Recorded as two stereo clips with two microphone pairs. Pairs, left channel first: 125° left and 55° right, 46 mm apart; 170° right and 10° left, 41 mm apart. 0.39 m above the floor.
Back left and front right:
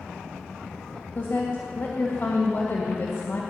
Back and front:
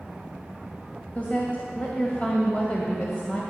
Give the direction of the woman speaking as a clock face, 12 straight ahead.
7 o'clock.